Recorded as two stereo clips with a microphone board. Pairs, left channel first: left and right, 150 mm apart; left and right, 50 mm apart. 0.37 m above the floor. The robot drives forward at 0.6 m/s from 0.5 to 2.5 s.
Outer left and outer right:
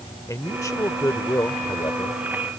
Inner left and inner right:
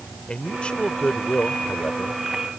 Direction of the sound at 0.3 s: 25° left (ahead or behind).